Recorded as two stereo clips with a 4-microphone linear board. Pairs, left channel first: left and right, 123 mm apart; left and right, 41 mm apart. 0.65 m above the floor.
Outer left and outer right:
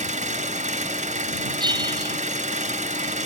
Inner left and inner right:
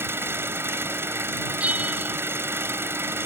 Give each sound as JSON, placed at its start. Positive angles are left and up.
{"t": 0.0, "sound": "an engine running", "side_deg": -80}
{"t": 1.6, "sound": "a bell", "side_deg": -35}